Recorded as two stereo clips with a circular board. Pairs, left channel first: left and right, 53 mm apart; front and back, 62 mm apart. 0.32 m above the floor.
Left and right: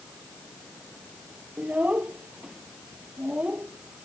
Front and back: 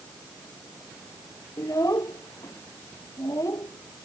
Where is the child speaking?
25° right.